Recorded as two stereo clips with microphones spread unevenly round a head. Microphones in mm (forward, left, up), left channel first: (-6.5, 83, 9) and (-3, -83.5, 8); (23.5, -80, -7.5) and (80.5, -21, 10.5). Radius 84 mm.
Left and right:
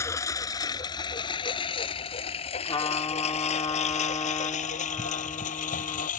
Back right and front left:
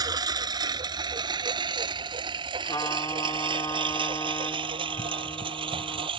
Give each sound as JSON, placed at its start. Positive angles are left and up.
{"t": 0.0, "sound": "a lawn mower", "azimuth_deg": 15}
{"t": 2.6, "sound": "a trumpet", "azimuth_deg": 155}